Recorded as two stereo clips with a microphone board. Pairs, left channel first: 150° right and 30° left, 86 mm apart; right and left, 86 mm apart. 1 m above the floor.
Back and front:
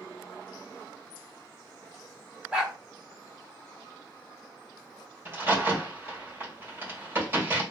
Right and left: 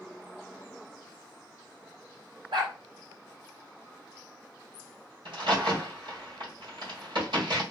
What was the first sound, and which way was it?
A dog barking, 105° left.